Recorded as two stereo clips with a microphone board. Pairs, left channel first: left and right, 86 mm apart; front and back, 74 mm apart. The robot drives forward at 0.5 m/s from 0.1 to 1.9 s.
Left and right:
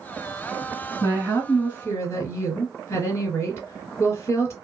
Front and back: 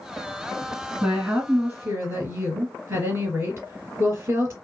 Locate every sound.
1.0 s a woman speaking: 125° left, 1.7 m; by 4.5 s 140° left, 1.9 m